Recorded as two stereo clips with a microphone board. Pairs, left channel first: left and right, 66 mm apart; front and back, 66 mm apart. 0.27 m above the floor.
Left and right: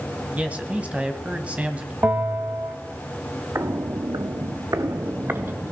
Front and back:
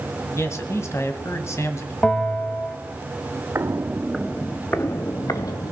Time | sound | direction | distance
0.4 | a man speaking | 25° right | 2.0 m
2.0 | a bell | 55° right | 1.5 m
3.5 | footsteps | 130° right | 0.9 m